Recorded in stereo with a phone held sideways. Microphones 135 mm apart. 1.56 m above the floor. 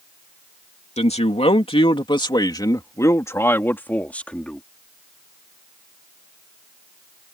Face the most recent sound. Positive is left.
turn(degrees=5)  # may be behind; listen again after turning